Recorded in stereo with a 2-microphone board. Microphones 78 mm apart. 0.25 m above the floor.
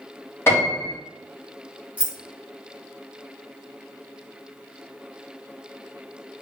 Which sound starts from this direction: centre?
Keys jangling, at 2.0 s.